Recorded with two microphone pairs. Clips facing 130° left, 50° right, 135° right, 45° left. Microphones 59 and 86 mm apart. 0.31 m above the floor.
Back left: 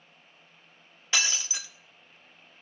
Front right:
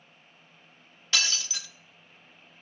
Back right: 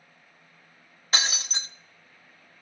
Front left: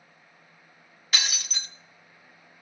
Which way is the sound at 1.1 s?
170° right.